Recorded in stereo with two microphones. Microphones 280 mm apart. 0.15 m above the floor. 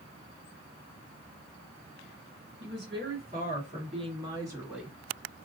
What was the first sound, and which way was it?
A woman speaking, 40° right (ahead or behind).